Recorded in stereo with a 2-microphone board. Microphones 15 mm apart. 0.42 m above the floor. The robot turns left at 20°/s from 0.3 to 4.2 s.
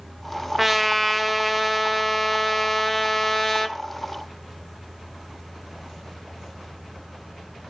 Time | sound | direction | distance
0.6 | a trumpet | 10° right (ahead or behind) | 0.9 m